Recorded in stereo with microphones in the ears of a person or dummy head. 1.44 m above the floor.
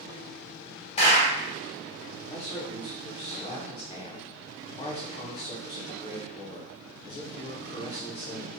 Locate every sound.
1.0 s a clap: 30° left (ahead or behind), 0.8 m
2.3 s a man speaking: 25° left (ahead or behind), 0.5 m